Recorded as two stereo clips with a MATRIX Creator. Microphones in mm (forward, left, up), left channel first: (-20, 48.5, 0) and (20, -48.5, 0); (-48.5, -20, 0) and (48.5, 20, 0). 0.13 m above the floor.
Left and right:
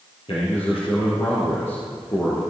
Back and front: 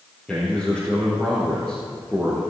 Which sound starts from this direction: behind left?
A man speaking, at 0.3 s.